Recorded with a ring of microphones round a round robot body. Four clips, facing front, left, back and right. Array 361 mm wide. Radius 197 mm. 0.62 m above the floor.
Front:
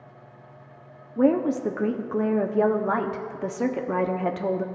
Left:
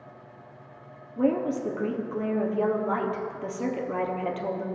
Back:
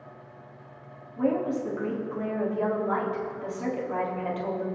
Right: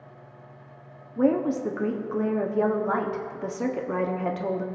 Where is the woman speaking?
20° right, 1.1 m.